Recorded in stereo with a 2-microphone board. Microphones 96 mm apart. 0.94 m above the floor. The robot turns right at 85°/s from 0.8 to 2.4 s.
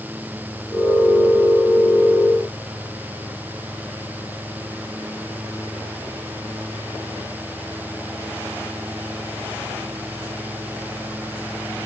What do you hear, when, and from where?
Only background noise.